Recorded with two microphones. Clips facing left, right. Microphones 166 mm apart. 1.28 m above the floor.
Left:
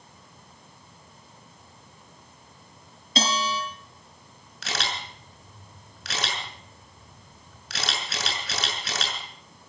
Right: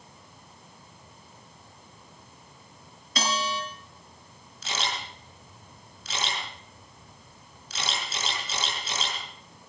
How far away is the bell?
About 7 m.